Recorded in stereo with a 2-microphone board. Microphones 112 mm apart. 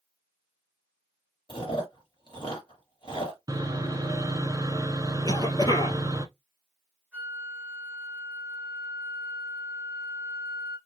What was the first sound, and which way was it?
Chewing, 45° left (ahead or behind).